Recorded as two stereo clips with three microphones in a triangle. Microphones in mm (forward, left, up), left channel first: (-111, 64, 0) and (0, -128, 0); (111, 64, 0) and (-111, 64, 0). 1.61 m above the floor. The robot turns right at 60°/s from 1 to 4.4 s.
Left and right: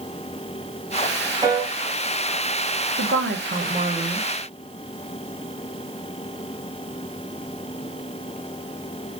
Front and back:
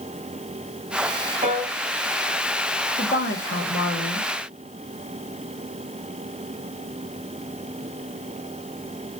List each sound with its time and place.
1.4 s a piano: 130° right, 3 m; by 1.7 s 115° right, 3 m
3.0 s a woman speaking: 50° right, 1.5 m; by 4.3 s 25° left, 1.5 m